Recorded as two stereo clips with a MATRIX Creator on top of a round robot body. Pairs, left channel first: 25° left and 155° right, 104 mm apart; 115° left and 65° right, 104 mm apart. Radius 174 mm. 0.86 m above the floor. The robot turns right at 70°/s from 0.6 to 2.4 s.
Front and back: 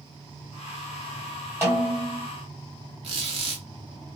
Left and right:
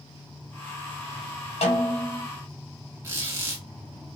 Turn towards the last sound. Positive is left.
turn(degrees=-130)